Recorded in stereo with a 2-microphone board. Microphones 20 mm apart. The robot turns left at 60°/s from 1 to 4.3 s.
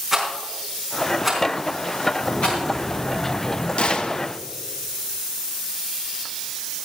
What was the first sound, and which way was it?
A rattle, 20° right (ahead or behind).